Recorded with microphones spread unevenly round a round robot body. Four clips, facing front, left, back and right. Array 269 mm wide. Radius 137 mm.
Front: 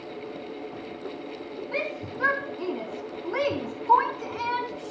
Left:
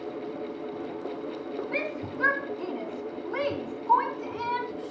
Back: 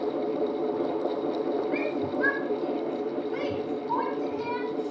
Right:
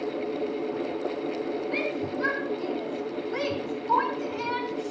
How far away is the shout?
About 5 m.